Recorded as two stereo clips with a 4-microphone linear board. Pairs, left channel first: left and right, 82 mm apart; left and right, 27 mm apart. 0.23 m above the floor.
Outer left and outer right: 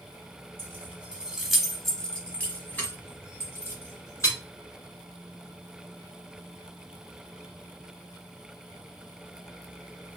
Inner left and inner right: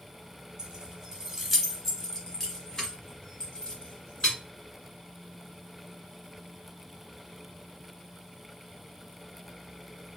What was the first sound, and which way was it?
Keys jangling, 25° right (ahead or behind).